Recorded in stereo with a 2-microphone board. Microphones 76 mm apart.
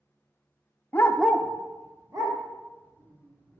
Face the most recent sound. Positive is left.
turn(degrees=-60)  # may be behind; listen again after turning